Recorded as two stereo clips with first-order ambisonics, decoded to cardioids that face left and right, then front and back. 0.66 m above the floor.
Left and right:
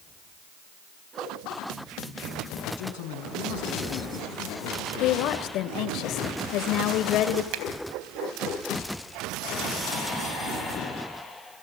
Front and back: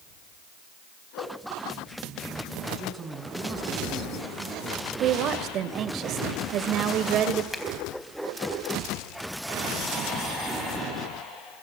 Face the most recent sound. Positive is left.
turn(degrees=-85)